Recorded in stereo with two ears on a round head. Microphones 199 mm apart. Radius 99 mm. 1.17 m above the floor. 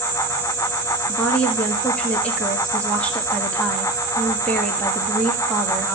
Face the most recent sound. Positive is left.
turn(degrees=5)  # may be behind; listen again after turning